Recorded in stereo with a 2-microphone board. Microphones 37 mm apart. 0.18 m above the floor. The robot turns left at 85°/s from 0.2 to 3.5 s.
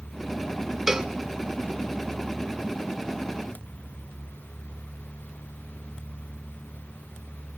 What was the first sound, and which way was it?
A cowbell, 10° right (ahead or behind).